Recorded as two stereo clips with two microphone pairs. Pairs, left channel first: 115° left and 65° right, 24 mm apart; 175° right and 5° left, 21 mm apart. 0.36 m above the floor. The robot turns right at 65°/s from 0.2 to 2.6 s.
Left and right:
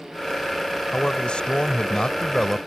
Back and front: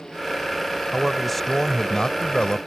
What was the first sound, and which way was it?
A man speaking, 75° left.